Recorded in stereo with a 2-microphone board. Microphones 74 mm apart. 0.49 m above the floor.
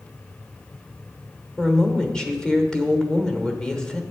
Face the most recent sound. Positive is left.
turn(degrees=10)  # may be behind; listen again after turning